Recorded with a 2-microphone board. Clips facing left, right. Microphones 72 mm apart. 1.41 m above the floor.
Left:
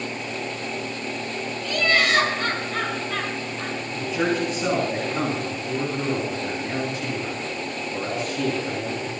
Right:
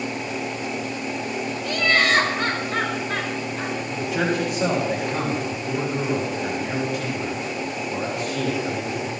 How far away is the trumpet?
I don't hear a trumpet.